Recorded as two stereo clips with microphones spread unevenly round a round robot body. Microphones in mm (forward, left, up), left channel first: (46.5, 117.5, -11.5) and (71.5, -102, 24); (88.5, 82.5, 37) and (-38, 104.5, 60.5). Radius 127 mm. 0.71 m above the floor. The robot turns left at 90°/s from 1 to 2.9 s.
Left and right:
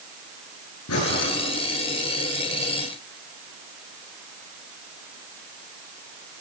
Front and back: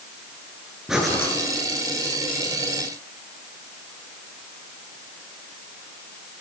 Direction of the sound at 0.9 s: 85° left.